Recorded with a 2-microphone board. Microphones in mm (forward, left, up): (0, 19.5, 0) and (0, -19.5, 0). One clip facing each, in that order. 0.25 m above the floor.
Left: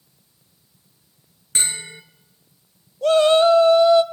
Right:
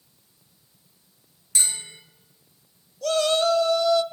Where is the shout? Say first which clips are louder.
Left 7 dB; 30° left (ahead or behind), 1.3 m.